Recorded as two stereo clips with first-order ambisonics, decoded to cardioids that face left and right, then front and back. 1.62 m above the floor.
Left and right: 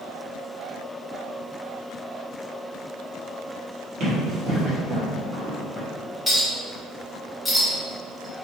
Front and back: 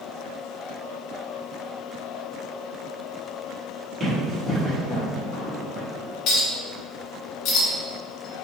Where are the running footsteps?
100° right, 1.9 m; by 5.9 s 120° left, 1.6 m.